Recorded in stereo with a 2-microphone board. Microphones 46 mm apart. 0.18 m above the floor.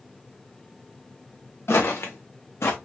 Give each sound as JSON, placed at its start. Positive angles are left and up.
{"t": 1.7, "sound": "footsteps", "side_deg": 75, "distance_m": 1.2}